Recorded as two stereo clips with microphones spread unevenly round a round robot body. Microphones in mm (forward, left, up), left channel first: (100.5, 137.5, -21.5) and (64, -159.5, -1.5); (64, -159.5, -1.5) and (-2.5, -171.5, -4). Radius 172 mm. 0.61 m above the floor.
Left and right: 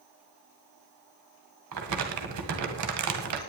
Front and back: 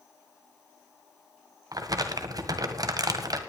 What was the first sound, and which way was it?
Crumpling, 140° right.